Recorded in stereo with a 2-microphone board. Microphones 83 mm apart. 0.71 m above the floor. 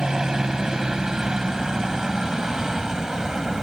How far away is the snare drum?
No snare drum in this recording.